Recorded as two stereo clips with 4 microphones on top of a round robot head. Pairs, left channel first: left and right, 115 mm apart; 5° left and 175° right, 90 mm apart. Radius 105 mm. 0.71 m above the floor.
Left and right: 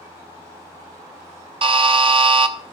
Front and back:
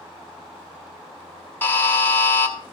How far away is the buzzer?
About 0.9 m.